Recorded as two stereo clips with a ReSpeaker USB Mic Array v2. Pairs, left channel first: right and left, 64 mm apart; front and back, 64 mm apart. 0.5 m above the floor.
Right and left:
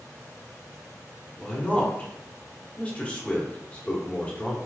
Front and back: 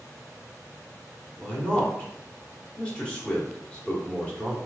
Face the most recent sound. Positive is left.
turn(degrees=-50)